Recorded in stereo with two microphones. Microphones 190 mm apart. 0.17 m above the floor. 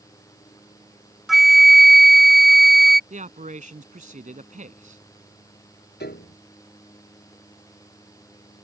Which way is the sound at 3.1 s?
40° right (ahead or behind).